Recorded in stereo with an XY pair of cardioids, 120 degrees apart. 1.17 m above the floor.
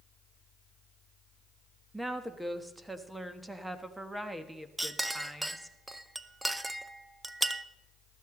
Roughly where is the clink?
Ahead.